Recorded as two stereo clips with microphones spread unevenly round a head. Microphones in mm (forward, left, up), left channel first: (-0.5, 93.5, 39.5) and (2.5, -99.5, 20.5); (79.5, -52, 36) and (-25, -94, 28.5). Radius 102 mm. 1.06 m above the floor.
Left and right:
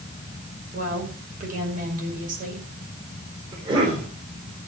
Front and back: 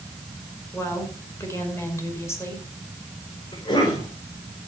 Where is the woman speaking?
45° right, 5.5 m.